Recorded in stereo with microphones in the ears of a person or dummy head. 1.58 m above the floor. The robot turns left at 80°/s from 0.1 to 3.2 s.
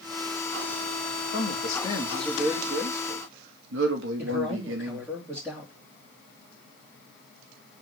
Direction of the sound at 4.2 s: 15° right (ahead or behind).